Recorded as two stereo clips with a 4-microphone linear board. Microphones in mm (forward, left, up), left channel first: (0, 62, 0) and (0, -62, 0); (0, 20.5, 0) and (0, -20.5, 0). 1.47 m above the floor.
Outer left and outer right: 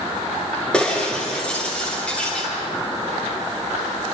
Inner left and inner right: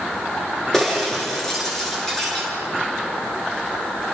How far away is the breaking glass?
About 7.5 m.